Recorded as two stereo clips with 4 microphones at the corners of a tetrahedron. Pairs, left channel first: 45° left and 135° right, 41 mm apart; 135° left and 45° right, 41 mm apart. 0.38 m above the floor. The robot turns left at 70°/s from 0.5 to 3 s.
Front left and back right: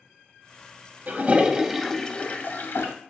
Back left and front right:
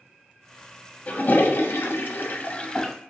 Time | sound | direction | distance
1.1 | a toilet flushing | 175° right | 0.6 m